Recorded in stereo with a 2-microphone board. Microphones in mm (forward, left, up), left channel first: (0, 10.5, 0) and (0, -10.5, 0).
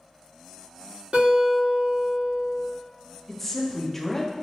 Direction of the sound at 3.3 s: 10° left (ahead or behind).